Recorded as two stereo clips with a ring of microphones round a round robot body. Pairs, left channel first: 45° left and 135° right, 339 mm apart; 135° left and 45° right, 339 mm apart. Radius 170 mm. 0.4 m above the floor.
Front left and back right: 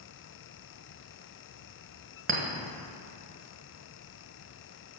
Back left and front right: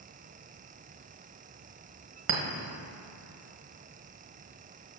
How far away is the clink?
About 1.4 m.